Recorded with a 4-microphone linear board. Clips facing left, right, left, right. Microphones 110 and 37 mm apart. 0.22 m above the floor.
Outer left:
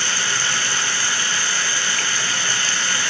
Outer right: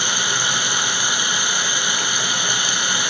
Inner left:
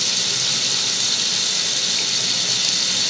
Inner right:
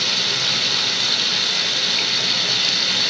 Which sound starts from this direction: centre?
Running water, at 0.0 s.